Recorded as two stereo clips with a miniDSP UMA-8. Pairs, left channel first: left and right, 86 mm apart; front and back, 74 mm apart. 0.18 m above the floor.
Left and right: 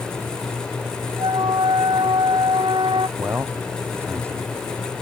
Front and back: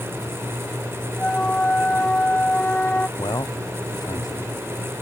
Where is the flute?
75° right.